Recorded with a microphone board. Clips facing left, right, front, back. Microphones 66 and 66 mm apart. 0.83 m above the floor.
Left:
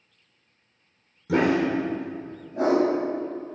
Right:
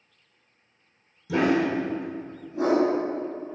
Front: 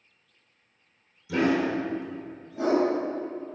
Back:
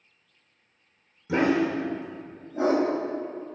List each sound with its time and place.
1.3 s a dog barking: 125° left, 1.1 m